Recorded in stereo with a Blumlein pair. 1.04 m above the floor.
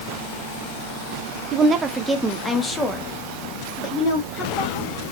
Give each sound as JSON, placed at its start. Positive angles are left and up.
{"t": 1.5, "sound": "a woman speaking", "azimuth_deg": -30, "distance_m": 0.7}